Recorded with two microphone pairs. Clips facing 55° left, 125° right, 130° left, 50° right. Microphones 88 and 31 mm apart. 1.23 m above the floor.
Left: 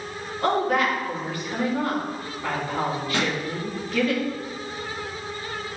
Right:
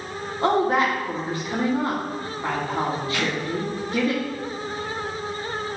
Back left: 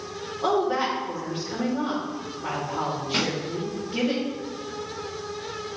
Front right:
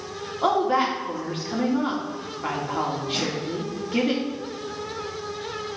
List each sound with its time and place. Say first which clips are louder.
0.4 s a woman speaking: right 2 dB, front right 2 dB; 60° right, 2.5 m
3.1 s a pop: even, back left 4 dB; 110° left, 1.5 m